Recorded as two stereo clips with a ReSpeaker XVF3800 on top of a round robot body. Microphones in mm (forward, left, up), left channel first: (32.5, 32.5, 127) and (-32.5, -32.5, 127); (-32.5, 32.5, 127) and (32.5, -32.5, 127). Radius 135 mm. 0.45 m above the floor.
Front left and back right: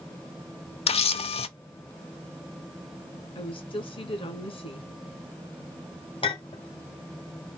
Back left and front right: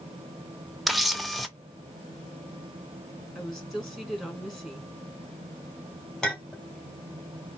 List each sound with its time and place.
0.9 s a camera shutter: 45° left, 0.6 m
3.4 s a woman speaking: 50° left, 2.5 m
6.2 s a clink: 50° left, 1.8 m